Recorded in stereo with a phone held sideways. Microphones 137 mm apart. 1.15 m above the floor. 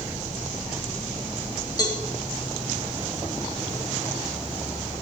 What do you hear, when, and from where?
1.8 s a cowbell: 30° left (ahead or behind), 4 m